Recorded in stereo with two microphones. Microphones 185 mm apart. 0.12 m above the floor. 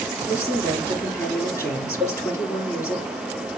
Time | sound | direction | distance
0.3 | a woman speaking | 15° left (ahead or behind) | 2.5 m
2.0 | a cowbell | 20° right (ahead or behind) | 4 m